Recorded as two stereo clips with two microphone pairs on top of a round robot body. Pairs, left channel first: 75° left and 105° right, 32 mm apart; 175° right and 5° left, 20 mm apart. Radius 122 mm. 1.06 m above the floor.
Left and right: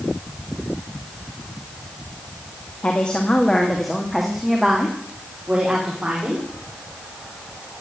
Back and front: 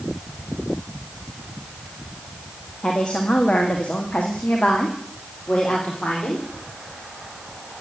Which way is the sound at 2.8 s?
130° left.